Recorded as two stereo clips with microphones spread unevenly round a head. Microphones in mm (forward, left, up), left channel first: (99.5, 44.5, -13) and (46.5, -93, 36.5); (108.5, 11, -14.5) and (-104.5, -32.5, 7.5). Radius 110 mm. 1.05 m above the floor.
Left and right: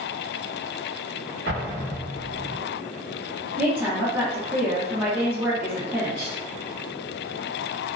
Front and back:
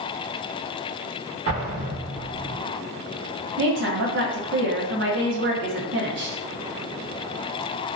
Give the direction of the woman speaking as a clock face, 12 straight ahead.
7 o'clock.